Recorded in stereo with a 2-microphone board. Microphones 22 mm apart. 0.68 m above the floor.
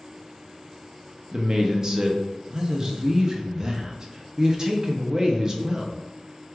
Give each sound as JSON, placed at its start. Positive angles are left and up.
{"t": 1.3, "sound": "a man speaking", "side_deg": -30, "distance_m": 0.6}